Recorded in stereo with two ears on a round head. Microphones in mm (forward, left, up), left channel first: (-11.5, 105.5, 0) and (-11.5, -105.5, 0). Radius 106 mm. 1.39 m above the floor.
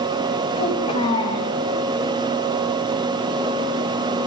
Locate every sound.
0.6 s a child speaking: 25° left (ahead or behind), 6.5 m